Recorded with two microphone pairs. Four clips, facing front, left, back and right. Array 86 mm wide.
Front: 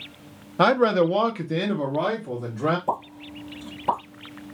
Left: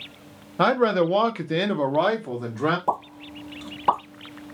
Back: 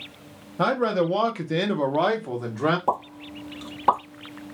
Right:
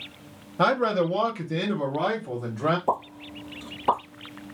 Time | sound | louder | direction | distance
0.6 | a man speaking | left 3 dB, front 4 dB | 20° left | 0.6 m
2.9 | a pop | even, back 2 dB | 160° left | 2 m